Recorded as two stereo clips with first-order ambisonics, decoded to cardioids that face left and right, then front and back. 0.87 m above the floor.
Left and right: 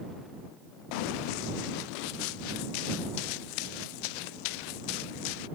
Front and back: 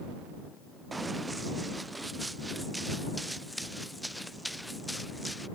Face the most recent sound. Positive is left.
turn(degrees=85)